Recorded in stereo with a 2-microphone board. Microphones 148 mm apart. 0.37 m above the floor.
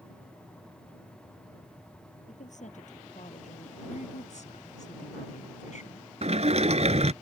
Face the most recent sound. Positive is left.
turn(degrees=-50)  # may be behind; listen again after turning